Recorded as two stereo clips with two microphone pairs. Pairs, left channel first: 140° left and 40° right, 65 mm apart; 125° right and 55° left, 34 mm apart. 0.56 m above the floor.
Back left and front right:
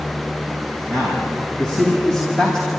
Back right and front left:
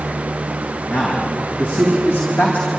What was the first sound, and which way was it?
A man speaking, 145° right.